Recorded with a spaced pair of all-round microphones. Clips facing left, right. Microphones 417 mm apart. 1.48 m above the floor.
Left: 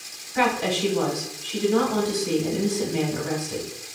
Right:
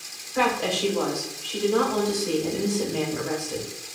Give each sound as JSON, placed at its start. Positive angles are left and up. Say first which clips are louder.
{"t": 0.3, "sound": "a woman speaking", "louder": "left 1 dB", "side_deg": 35, "distance_m": 1.5}